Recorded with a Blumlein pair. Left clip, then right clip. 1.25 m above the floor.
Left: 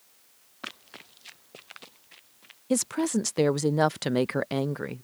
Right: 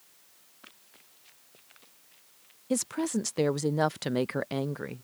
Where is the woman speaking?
10° left.